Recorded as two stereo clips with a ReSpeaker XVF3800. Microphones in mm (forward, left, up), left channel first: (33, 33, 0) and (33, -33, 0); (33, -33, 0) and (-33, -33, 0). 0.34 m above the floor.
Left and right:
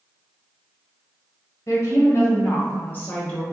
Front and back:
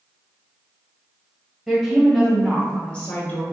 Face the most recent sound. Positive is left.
turn(degrees=30)